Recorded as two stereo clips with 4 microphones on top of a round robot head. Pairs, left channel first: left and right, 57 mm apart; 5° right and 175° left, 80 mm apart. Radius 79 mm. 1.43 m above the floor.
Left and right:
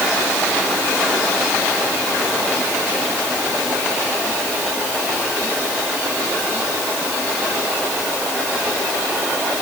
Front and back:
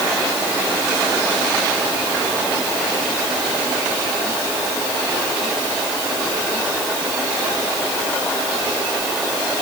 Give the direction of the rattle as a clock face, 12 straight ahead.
I don't hear a rattle.